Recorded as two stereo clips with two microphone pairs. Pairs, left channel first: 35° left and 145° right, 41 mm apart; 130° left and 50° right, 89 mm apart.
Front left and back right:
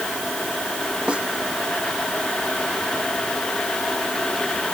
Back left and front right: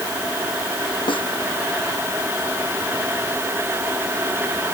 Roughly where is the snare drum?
Behind left.